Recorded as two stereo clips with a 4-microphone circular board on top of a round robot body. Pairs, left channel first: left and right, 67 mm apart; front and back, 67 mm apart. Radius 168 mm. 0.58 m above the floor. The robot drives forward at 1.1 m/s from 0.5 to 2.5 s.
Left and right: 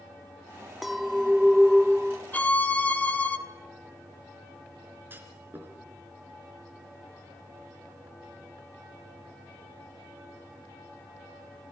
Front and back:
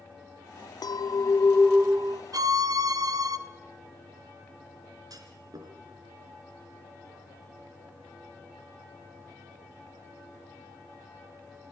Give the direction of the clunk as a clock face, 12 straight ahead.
5 o'clock.